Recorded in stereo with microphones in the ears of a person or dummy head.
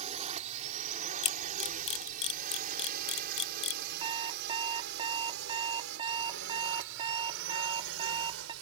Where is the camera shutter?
35° left (ahead or behind).